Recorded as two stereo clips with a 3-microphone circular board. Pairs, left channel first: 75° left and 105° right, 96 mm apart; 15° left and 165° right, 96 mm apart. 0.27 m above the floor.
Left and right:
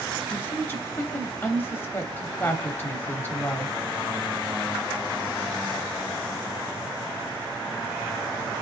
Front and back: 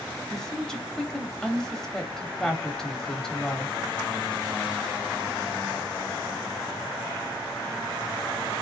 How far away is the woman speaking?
About 0.9 m.